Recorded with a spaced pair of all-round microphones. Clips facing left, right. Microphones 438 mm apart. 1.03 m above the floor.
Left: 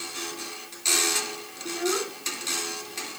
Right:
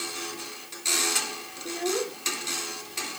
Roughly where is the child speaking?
Left.